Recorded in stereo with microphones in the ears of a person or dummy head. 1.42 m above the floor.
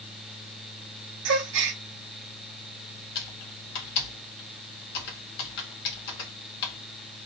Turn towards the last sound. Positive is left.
turn(degrees=65)  # may be behind; listen again after turning